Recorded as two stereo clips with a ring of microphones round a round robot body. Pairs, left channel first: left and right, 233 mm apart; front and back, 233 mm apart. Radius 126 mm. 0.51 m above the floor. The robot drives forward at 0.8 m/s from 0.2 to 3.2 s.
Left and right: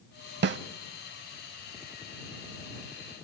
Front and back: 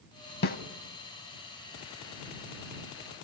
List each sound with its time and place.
0.4 s a snare drum: 50° right, 0.6 m; by 0.6 s 60° right, 0.5 m